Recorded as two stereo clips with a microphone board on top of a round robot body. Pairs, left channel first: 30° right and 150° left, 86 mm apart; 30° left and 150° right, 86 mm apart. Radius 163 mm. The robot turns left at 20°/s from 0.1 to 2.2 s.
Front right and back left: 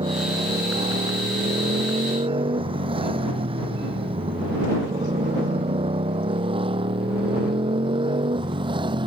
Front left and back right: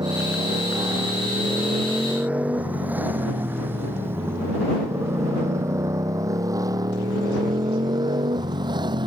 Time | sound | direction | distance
0.0 | a motorcycle | 170° left | ?